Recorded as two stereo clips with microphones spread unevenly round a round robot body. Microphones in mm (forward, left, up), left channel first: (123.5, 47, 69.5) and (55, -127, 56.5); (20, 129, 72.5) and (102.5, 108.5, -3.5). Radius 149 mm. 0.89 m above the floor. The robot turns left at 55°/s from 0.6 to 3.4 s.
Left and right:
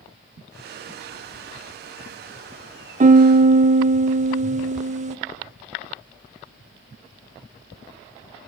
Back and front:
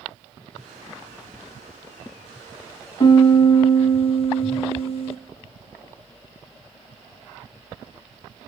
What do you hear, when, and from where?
3.0 s a piano: 105° right, 0.9 m; by 5.2 s 130° right, 0.9 m